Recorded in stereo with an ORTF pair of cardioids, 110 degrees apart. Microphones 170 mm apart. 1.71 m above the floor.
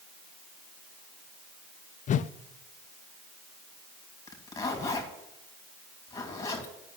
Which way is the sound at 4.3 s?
20° left.